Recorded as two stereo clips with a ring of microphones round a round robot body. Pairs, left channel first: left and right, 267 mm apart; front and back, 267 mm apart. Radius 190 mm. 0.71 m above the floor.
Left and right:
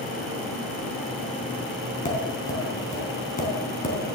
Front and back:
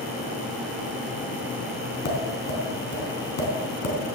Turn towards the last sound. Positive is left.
turn(degrees=30)